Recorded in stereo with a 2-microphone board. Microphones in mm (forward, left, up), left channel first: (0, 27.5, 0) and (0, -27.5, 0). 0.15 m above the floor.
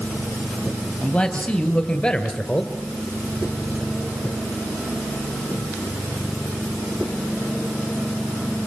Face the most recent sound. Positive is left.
turn(degrees=15)  # may be behind; listen again after turning